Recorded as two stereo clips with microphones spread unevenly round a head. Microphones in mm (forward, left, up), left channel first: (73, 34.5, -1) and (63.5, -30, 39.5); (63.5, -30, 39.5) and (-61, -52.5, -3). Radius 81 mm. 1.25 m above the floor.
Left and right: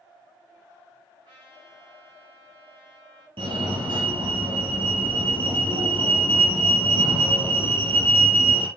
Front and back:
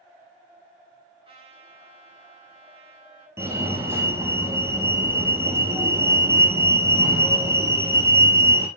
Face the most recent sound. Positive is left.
turn(degrees=-105)